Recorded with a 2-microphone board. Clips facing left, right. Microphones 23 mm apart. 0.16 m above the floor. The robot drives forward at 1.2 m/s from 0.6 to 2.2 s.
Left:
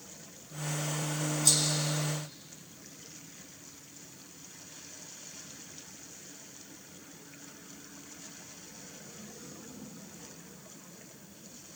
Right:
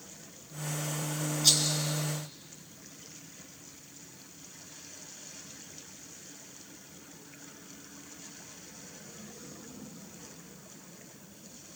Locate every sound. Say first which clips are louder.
1.4 s a rattle: right 3 dB; 50° right (ahead or behind), 2.5 m; by 1.8 s 45° right (ahead or behind), 2.5 m